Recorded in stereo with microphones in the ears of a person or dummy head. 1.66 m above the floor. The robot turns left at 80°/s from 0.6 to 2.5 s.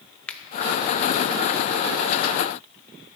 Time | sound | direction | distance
0.3 | a finger snap | centre (ahead or behind) | 0.6 m